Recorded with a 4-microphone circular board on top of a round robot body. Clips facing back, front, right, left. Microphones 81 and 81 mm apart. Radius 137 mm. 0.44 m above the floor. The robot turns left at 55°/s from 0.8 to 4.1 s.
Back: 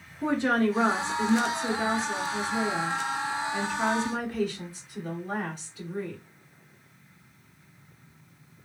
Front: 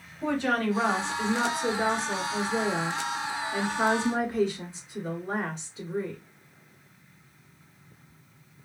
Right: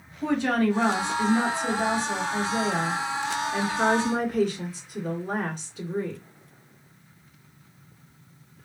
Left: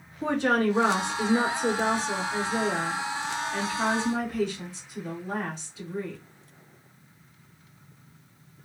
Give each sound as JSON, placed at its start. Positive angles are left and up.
{"t": 0.2, "sound": "a woman speaking", "azimuth_deg": 120, "distance_m": 1.7}